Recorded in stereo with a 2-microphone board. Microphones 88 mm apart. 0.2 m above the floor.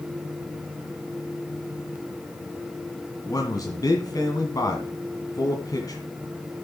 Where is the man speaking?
45° left (ahead or behind), 1.8 m.